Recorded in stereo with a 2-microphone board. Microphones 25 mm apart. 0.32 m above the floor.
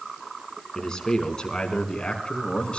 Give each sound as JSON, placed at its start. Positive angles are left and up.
{"t": 0.8, "sound": "a man speaking", "side_deg": 30, "distance_m": 4.0}